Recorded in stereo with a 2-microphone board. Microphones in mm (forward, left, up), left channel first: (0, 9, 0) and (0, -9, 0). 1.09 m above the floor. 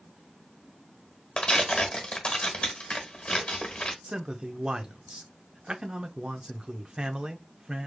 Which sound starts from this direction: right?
A man speaking, at 4.0 s.